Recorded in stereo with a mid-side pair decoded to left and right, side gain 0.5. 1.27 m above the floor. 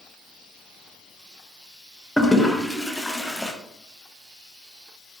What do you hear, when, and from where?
2.2 s a toilet flushing: 10° left, 0.6 m